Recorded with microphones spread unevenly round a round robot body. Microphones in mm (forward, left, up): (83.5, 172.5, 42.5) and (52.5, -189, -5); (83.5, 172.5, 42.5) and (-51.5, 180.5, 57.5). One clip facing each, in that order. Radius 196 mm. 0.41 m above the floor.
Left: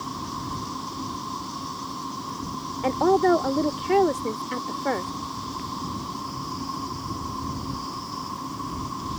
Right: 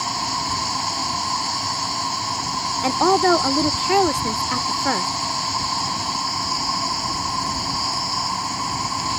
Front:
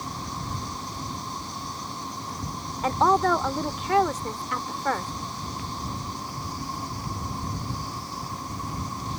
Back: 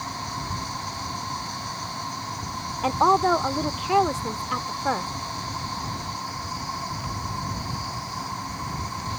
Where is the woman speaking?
95° right.